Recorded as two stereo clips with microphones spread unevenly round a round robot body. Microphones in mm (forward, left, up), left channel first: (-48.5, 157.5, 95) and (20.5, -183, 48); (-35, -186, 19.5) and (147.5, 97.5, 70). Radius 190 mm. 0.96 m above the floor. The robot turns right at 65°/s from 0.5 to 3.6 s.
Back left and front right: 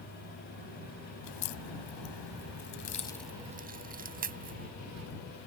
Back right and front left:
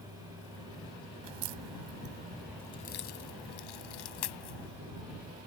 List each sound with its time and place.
1.2 s a crack: 60° left; by 4.7 s 145° right